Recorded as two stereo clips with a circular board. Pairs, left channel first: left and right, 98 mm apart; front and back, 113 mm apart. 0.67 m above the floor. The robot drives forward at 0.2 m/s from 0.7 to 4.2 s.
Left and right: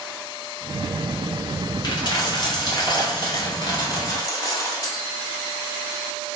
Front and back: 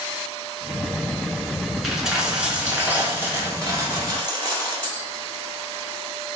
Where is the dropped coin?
95° left, 0.8 m; by 5.0 s 130° left, 0.9 m.